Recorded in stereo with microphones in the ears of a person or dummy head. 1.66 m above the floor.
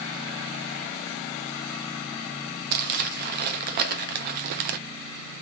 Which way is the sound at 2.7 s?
55° right (ahead or behind).